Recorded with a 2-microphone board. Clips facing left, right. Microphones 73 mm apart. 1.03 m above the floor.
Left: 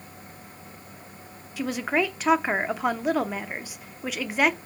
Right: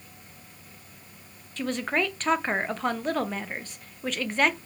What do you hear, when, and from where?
1.6 s a woman speaking: 10° left (ahead or behind), 0.6 m